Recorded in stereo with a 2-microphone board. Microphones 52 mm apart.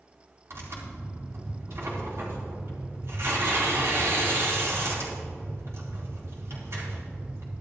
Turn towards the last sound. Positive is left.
turn(degrees=-60)  # may be behind; listen again after turning